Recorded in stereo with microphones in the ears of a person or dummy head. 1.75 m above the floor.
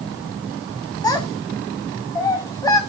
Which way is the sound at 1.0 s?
15° left (ahead or behind).